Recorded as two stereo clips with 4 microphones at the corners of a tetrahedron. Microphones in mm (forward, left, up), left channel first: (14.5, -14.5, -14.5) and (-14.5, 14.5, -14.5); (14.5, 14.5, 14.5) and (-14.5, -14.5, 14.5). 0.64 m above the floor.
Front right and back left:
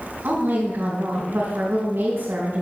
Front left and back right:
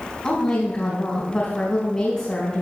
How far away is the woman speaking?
About 4 m.